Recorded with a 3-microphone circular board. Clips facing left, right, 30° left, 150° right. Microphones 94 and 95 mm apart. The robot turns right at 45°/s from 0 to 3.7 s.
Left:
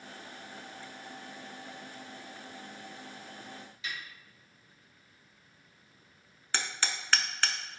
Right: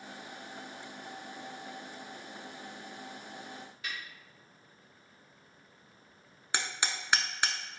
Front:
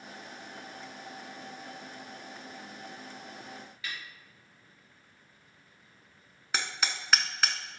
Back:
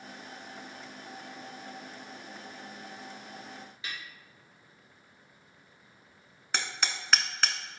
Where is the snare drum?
90° right, 2.0 m.